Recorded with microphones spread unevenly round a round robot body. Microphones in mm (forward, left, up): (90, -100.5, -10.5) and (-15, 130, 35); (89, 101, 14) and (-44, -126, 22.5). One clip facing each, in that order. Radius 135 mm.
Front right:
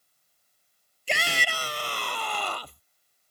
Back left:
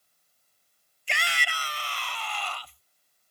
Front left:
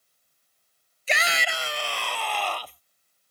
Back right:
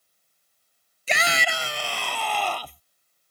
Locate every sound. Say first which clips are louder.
1.1 s a shout: front right 7 dB, back right 2 dB; 120° right